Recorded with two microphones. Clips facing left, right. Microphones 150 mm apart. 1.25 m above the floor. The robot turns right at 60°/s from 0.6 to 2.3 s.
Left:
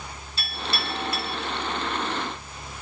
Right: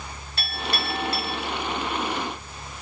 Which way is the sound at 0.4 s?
60° right (ahead or behind).